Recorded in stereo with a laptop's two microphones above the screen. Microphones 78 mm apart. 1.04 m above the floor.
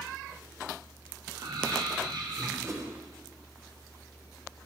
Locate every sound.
1.3 s laughter: 70° right (ahead or behind), 3 m
2.6 s a whoosh: 35° right (ahead or behind), 3 m